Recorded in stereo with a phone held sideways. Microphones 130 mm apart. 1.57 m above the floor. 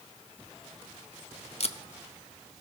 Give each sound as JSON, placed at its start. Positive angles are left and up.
{"t": 1.6, "sound": "tape being pulled", "side_deg": 55, "distance_m": 0.6}